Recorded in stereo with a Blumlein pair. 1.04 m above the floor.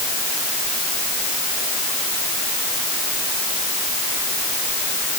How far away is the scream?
I don't hear a scream.